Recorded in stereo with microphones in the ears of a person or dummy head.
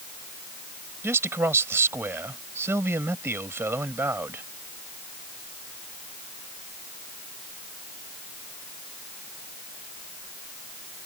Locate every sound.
1.0 s a man speaking: 10° right (ahead or behind)